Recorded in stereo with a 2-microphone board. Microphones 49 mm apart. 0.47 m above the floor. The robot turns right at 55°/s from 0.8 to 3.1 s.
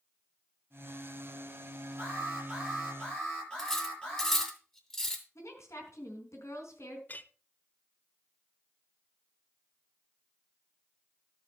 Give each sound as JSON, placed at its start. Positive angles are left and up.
{"t": 2.0, "sound": "an alarm", "azimuth_deg": -40, "distance_m": 8.5}
{"t": 3.6, "sound": "cutlery clinking", "side_deg": 10, "distance_m": 2.5}
{"t": 5.3, "sound": "a woman speaking", "side_deg": 70, "distance_m": 4.0}
{"t": 7.1, "sound": "a clink", "side_deg": 35, "distance_m": 0.6}